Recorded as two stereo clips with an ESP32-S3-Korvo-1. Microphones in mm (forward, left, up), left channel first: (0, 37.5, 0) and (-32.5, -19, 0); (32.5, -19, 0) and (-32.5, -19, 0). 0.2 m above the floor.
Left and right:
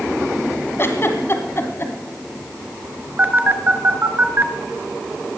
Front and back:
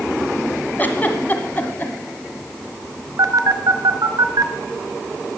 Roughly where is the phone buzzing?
Behind.